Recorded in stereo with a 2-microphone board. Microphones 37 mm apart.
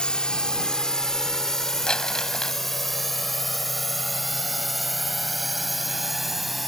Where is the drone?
25° left (ahead or behind); by 6.7 s 5° right (ahead or behind).